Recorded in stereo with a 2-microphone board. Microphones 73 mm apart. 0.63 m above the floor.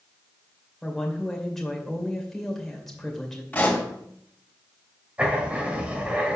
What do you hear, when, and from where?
0.8 s a woman speaking: 5° left (ahead or behind), 2 m
3.5 s a pop: 20° left (ahead or behind), 3 m
5.2 s writing: 15° right (ahead or behind), 1.8 m